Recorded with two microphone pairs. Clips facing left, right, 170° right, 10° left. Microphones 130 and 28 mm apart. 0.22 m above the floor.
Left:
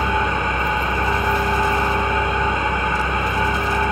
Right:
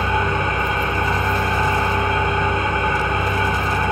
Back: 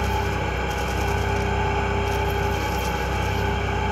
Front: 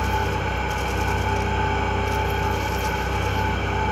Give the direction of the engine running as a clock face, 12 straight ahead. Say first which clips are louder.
Even, front 1 dB; 2 o'clock.